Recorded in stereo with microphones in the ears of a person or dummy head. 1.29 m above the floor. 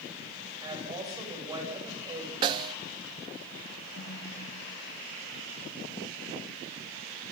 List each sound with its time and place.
0.6 s a woman speaking: 25° right (ahead or behind), 7.5 m
2.4 s a snare drum: 30° right (ahead or behind), 0.5 m
4.0 s a snare drum: 80° left, 9 m